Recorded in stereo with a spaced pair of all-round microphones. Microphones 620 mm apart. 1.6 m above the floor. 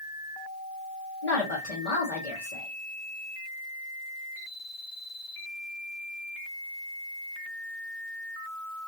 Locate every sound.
1.2 s a woman speaking: 70° left (ahead or behind), 1.3 m